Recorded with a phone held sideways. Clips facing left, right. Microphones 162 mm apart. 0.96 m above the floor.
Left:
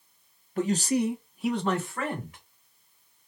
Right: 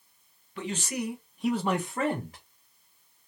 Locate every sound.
0.6 s a man speaking: 45° left (ahead or behind), 0.8 m; by 2.4 s 35° right (ahead or behind), 1.0 m